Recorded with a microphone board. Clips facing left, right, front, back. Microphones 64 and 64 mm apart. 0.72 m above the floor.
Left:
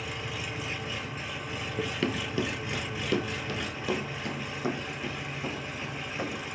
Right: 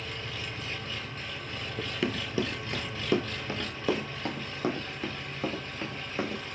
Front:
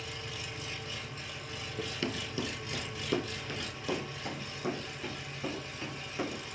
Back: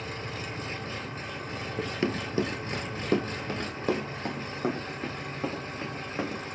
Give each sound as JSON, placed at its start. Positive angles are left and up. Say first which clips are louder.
{"t": 0.0, "sound": "an engine running", "louder": "left 2 dB, back 6 dB", "azimuth_deg": 160, "distance_m": 0.8}
{"t": 1.8, "sound": "running footsteps", "louder": "left 1 dB, back 6 dB", "azimuth_deg": 165, "distance_m": 0.7}